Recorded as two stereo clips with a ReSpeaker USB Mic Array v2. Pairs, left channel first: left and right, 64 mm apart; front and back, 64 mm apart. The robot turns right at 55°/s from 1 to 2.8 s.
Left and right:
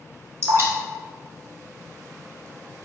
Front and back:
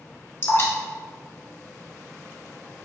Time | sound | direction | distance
0.4 | dripping | 45° right | 1.4 m